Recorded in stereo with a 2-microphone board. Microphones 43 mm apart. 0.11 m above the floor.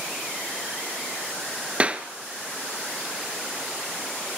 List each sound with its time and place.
1.8 s a clap: 25° right (ahead or behind), 1.1 m